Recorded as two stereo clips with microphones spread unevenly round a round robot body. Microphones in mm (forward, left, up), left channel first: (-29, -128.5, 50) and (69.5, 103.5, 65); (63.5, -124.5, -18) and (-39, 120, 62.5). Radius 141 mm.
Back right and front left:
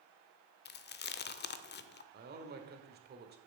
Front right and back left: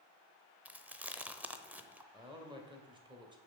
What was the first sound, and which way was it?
Chewing, 150° right.